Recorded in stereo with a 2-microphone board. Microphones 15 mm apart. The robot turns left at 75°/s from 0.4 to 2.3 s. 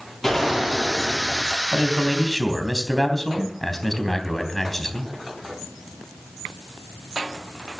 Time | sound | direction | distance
0.2 | a gunshot | 165° left | 10 m
1.7 | a man speaking | 145° right | 3 m